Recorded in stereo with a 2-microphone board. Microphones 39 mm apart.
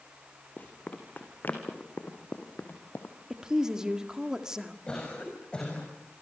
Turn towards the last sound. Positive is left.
turn(degrees=25)  # may be behind; listen again after turning